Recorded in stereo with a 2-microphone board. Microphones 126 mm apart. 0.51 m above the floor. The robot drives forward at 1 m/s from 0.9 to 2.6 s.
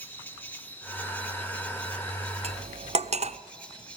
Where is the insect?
15° left (ahead or behind), 2.5 m; by 4.0 s 10° left (ahead or behind), 4 m.